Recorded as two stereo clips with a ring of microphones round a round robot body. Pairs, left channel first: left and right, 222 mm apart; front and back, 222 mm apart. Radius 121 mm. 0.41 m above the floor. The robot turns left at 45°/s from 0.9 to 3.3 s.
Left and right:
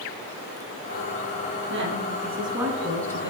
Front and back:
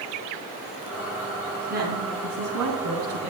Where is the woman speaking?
125° right, 3.5 m; by 3.3 s 160° left, 3.5 m.